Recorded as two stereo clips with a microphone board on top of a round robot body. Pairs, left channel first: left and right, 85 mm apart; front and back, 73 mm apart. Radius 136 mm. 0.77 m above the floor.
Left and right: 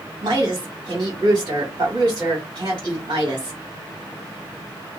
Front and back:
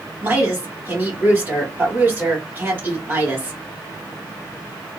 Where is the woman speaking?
120° right, 1.9 m.